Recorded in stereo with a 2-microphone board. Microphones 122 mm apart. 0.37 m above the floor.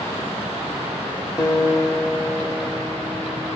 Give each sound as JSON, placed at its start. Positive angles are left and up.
{"t": 1.4, "sound": "a guitar", "side_deg": 35, "distance_m": 0.8}